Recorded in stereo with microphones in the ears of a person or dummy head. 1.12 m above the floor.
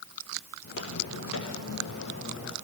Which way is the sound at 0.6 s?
65° left (ahead or behind).